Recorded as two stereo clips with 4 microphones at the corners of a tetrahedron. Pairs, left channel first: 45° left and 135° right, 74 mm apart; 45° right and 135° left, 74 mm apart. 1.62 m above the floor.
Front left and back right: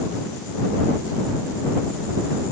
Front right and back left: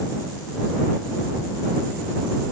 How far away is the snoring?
I don't hear snoring.